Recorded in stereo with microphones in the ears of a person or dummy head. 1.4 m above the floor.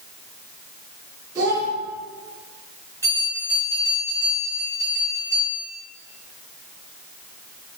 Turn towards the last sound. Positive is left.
turn(degrees=20)  # may be behind; listen again after turning